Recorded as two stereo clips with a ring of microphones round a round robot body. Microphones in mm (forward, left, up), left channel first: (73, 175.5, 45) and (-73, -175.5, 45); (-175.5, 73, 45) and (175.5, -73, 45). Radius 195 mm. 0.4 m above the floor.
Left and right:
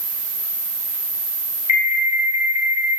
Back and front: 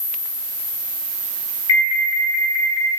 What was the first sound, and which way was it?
An alarm, 140° left.